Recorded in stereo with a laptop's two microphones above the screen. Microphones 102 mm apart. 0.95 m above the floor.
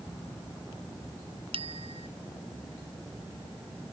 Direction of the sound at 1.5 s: 60° right (ahead or behind).